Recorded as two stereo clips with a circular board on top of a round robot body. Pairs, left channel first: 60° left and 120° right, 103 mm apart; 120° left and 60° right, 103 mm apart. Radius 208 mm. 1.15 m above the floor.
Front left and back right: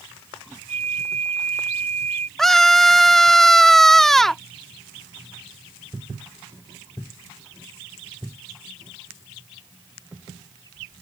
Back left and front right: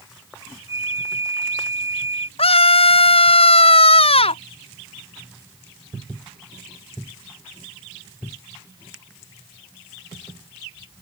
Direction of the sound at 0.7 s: 125° right.